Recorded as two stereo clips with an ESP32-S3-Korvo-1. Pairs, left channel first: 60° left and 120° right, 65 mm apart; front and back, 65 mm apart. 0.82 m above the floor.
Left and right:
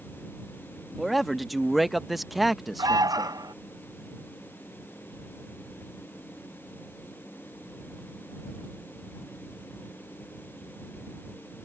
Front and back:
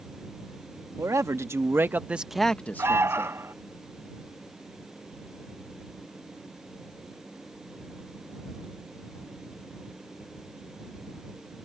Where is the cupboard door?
I don't hear a cupboard door.